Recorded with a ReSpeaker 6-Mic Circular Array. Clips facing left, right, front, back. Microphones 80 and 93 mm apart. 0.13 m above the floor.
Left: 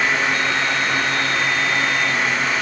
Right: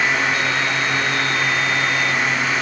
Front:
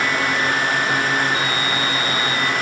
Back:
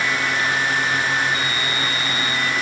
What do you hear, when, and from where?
Only background noise.